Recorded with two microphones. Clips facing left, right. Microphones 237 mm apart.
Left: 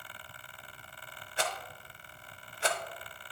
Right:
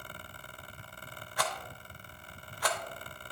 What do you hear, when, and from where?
1.4 s a rattle: 25° left (ahead or behind), 0.7 m